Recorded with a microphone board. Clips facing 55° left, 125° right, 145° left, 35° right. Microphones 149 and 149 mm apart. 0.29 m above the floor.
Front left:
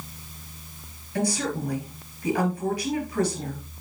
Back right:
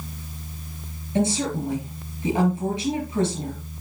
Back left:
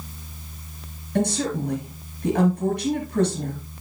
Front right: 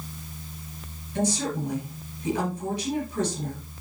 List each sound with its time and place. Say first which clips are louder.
1.1 s a woman speaking: back right 3 dB, back left 3 dB; 175° left, 3.5 m